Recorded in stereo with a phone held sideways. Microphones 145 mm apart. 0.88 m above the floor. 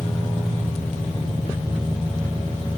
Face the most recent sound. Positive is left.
turn(degrees=50)  # may be behind; listen again after turning